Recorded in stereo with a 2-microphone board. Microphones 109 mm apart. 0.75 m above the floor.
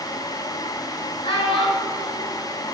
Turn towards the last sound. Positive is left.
turn(degrees=55)  # may be behind; listen again after turning